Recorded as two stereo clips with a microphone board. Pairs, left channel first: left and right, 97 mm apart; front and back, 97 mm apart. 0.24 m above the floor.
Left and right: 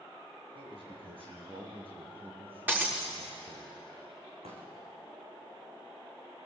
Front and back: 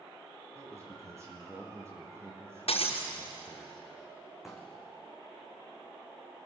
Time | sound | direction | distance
0.6 | a man speaking | 125° right | 8.5 m
2.7 | breaking glass | 20° right | 5.5 m
4.4 | a pop | 90° right | 5 m